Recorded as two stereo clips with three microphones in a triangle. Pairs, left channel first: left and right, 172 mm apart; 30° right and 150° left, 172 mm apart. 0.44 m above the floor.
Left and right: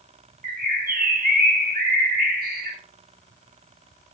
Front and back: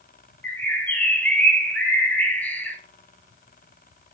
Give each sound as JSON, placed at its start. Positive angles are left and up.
{"t": 0.4, "sound": "a bird", "azimuth_deg": -110, "distance_m": 0.6}